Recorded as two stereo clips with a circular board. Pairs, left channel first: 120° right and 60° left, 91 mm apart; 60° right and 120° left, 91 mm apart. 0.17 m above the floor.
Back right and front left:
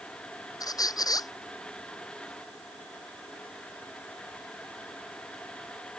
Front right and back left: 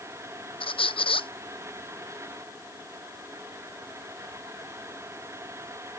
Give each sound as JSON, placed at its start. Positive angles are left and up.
{"t": 0.6, "sound": "a squeak", "azimuth_deg": -75}